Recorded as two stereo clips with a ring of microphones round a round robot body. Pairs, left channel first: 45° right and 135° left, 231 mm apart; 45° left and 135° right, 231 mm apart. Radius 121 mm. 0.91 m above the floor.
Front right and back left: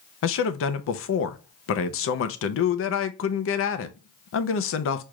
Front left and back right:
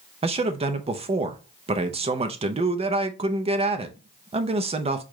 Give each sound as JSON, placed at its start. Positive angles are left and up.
{"t": 0.2, "sound": "a man speaking", "azimuth_deg": -70, "distance_m": 0.6}